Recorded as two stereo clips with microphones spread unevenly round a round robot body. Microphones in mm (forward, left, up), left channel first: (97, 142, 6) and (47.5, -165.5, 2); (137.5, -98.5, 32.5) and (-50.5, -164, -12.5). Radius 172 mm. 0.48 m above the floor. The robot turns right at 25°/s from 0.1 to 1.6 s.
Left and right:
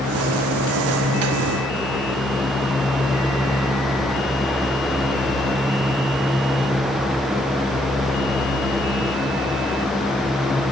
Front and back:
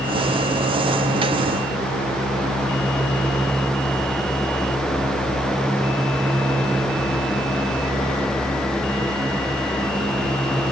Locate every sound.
Only background noise.